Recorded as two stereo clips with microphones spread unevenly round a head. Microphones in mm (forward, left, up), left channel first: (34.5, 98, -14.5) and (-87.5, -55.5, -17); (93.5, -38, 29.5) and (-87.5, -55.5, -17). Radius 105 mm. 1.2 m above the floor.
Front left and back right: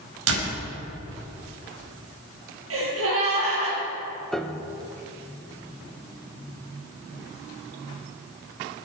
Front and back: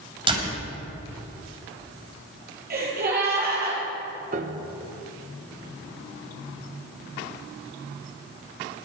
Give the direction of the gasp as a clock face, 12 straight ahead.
5 o'clock.